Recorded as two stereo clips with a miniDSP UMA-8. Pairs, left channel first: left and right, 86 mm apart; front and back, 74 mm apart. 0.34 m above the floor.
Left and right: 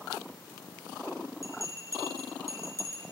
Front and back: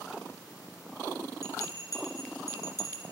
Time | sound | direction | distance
1.4 | a bell | 40° right | 2.5 m